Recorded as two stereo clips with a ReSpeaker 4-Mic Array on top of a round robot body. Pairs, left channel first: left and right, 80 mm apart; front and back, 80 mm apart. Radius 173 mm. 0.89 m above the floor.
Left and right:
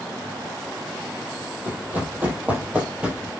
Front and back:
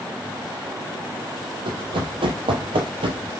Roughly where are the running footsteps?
Behind.